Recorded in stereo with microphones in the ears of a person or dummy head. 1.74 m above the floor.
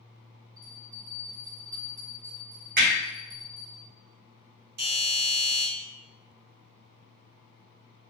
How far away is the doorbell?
About 1.0 m.